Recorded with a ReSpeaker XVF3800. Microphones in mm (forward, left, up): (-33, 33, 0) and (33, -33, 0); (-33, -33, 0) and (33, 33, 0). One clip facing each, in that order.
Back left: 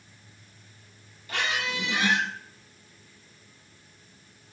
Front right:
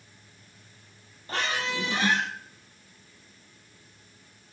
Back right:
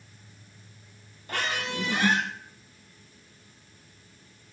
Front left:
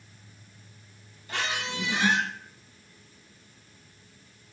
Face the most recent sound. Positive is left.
turn(degrees=-100)